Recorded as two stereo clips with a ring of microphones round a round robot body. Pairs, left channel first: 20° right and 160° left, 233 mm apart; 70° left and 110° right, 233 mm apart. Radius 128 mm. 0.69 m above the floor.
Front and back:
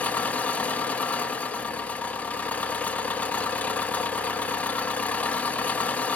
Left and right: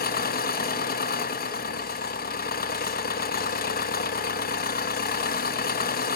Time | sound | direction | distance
0.0 | an engine running | 60° left | 1.0 m